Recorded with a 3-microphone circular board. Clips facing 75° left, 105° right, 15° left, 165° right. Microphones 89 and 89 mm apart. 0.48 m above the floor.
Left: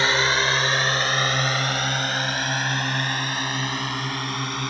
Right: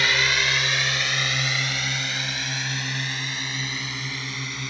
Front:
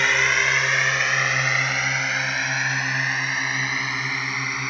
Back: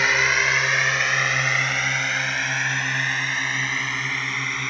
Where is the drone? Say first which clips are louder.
Left 3 dB, even; 110° left; by 4.7 s 100° left.